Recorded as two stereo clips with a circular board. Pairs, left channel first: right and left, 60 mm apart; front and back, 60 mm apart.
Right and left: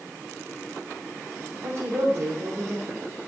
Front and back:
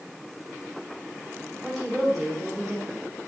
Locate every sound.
1.6 s a woman speaking: 95° left, 1.5 m